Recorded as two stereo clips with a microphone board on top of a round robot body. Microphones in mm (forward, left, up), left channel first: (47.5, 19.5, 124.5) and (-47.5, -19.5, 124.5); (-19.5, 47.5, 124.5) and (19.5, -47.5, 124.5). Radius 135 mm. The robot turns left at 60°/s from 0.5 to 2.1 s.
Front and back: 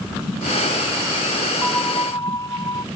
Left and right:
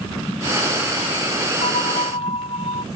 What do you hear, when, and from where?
1.6 s a bell: 110° left; by 2.9 s 80° left